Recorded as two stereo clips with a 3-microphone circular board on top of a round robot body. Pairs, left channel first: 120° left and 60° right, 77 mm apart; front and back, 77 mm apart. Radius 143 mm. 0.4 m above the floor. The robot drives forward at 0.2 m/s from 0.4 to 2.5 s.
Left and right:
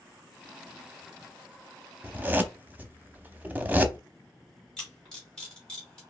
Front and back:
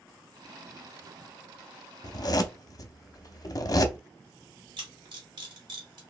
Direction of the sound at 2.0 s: 5° left.